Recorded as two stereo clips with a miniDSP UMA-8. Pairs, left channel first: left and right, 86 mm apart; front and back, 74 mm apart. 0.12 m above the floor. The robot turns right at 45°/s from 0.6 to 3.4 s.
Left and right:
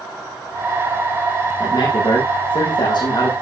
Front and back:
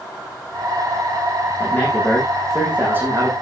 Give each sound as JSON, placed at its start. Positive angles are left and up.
{"t": 1.6, "sound": "a man speaking", "azimuth_deg": 55, "distance_m": 7.0}